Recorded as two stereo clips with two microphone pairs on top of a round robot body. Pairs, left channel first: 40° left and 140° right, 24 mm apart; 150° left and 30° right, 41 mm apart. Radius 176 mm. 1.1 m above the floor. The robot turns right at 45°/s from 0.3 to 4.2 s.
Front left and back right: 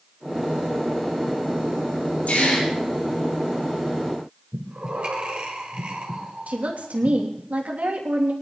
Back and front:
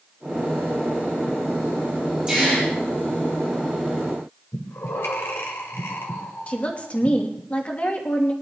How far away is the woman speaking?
About 2.5 m.